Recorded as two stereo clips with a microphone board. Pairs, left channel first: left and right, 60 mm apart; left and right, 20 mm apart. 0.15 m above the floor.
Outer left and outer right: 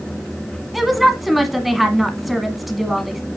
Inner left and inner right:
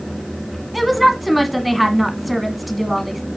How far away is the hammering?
I don't hear hammering.